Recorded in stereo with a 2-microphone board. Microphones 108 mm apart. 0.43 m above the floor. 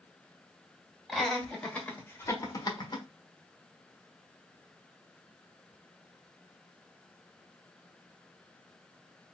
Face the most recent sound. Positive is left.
turn(degrees=45)  # may be behind; listen again after turning